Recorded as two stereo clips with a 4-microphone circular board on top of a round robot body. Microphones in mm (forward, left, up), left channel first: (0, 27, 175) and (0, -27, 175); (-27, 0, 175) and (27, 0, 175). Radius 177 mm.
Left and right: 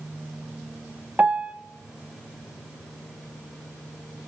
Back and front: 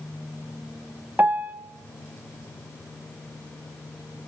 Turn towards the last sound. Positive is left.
turn(degrees=-40)